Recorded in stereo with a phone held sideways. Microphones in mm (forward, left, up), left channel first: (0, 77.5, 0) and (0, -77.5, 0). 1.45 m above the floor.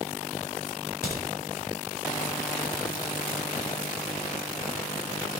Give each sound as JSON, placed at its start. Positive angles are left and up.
{"t": 0.7, "sound": "a crack", "side_deg": -80, "distance_m": 5.0}